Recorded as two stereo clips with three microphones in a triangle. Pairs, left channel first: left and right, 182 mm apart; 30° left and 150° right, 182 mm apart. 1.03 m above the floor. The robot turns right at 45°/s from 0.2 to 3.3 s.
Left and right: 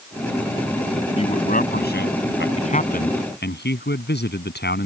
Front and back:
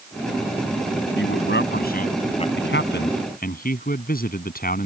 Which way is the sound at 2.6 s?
35° left.